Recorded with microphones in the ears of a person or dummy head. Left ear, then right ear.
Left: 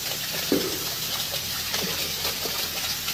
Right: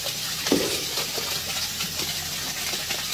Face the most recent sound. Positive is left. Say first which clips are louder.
# right 2 dB
turn(degrees=-15)  # may be behind; listen again after turning